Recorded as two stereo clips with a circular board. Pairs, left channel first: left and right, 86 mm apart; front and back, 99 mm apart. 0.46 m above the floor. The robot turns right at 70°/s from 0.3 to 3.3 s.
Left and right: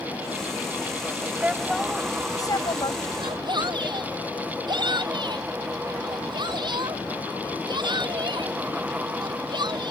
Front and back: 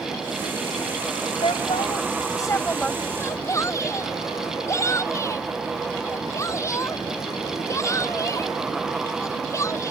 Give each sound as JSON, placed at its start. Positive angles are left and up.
{"t": 1.4, "sound": "a woman speaking", "azimuth_deg": -20}
{"t": 3.2, "sound": "a shout", "azimuth_deg": -65}